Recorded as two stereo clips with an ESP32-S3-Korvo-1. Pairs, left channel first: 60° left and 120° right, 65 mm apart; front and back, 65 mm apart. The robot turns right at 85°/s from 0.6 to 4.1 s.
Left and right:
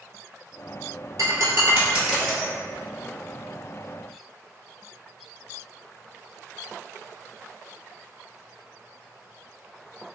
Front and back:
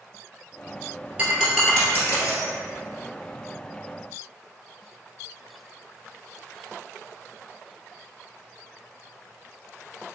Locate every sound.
1.2 s breaking glass: 115° right, 1.3 m; by 2.5 s straight ahead, 1.3 m